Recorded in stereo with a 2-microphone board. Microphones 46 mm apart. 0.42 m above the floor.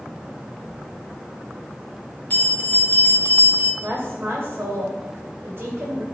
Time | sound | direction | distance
2.3 | a bell | 35° left (ahead or behind) | 1.0 m
3.8 | a woman speaking | 50° right (ahead or behind) | 1.9 m